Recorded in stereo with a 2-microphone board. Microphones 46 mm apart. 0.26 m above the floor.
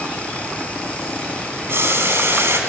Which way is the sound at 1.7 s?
55° right (ahead or behind).